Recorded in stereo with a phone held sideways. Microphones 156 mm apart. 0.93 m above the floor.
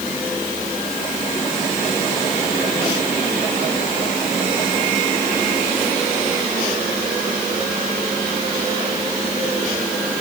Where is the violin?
I don't hear a violin.